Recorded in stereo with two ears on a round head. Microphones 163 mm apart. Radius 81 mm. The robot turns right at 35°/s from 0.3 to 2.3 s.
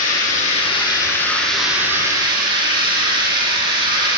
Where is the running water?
135° left, 8 m; by 4.2 s 155° right, 8 m.